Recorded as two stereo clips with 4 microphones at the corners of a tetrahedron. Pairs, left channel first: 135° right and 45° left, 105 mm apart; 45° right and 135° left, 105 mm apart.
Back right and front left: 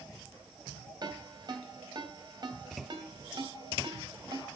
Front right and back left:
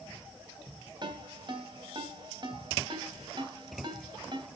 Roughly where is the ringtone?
Left.